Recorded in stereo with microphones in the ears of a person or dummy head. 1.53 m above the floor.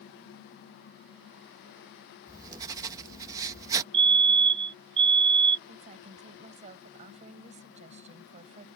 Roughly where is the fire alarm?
Right.